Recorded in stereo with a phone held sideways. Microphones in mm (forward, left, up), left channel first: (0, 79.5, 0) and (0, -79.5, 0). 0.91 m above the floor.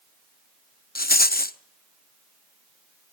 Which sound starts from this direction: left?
A rattle, at 0.9 s.